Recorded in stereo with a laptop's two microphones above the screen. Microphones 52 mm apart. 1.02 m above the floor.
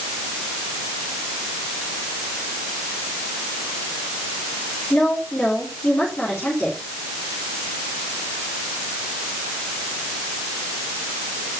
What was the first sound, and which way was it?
A woman speaking, 25° left (ahead or behind).